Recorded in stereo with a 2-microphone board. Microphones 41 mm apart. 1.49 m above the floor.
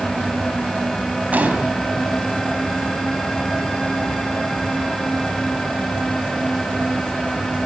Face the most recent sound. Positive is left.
turn(degrees=-40)  # may be behind; listen again after turning